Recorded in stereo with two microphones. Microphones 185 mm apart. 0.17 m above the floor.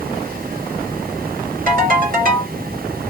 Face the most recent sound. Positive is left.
turn(degrees=-55)  # may be behind; listen again after turning